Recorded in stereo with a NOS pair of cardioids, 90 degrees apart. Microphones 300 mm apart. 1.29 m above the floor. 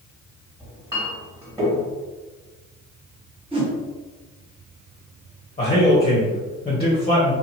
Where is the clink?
15° right, 1.8 m.